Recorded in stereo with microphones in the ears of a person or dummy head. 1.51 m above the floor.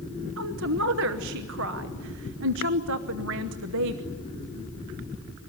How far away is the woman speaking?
About 1.0 m.